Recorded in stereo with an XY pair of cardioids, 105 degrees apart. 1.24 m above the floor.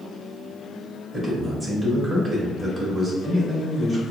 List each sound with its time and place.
1.1 s a man speaking: 25° right, 2.0 m